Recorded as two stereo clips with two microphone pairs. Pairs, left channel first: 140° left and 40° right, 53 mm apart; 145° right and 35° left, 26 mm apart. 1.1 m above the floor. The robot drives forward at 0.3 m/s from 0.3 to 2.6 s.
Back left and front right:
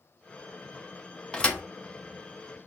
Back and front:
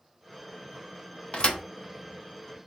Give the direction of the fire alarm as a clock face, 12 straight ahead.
I don't hear a fire alarm.